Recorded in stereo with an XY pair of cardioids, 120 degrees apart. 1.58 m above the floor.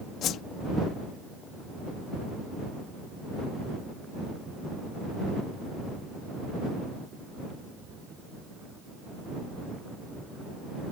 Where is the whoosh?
65° left.